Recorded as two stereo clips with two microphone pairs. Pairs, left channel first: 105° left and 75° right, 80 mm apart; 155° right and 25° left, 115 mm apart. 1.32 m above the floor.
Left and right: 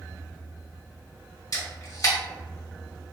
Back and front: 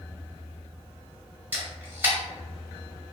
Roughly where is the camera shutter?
Left.